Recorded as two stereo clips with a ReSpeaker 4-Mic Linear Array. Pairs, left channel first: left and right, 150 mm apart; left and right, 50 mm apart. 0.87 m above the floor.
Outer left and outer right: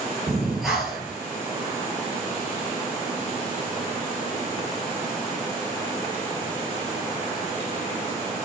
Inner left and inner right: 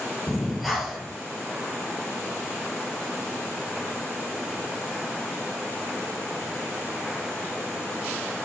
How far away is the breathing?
About 3.5 m.